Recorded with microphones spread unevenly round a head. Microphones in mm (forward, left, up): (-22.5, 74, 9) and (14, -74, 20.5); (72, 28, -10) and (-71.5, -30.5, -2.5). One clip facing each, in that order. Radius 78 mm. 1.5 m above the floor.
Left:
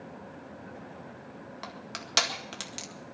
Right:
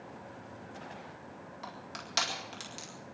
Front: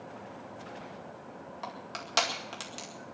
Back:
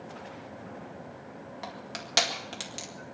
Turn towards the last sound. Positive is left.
turn(degrees=125)